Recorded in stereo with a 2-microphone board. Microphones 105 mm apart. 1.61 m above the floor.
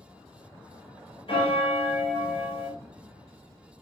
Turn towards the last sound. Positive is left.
turn(degrees=60)  # may be behind; listen again after turning